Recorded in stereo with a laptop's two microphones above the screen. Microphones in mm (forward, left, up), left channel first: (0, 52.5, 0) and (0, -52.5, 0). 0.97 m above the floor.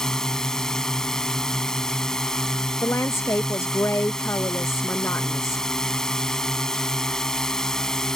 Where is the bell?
No bell in this recording.